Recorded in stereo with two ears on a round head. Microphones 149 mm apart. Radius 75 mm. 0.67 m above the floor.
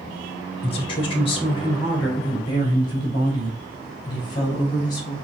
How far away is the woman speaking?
About 1.1 m.